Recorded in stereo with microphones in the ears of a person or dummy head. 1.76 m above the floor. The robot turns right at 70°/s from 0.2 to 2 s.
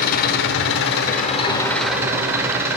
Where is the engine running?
65° left, 0.9 m; by 2.8 s 170° right, 0.9 m.